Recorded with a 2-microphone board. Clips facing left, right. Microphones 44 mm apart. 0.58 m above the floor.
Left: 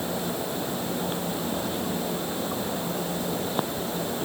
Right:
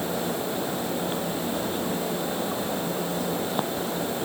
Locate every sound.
Only background noise.